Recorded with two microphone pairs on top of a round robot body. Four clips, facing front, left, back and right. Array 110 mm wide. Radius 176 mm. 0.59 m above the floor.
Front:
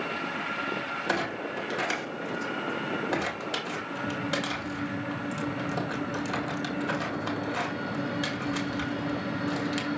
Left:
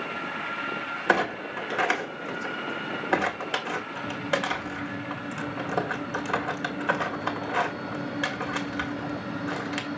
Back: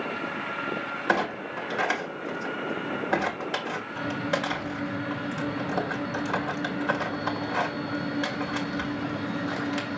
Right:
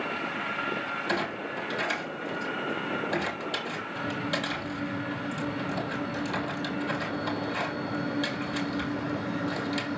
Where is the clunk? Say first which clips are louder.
Left 8 dB, back 5 dB; 110° left, 2 m.